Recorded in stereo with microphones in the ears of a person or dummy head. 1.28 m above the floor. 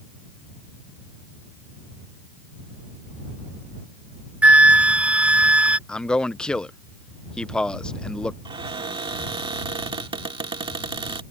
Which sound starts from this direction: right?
A cupboard door, at 8.4 s.